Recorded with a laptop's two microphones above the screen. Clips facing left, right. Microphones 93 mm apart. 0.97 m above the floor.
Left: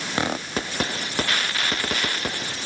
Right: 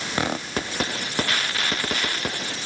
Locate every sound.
Only background noise.